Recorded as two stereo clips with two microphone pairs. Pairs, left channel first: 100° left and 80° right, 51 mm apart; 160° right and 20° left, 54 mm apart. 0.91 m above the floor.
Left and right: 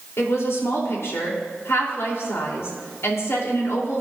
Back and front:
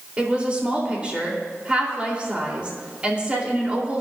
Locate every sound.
0.2 s a woman speaking: 85° left, 3.5 m